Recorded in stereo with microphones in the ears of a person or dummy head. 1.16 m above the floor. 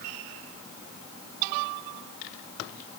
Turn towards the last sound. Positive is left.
No sound to turn to.